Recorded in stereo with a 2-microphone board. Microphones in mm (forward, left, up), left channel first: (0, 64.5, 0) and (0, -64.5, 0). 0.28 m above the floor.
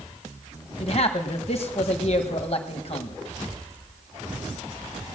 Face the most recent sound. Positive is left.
turn(degrees=50)  # may be behind; listen again after turning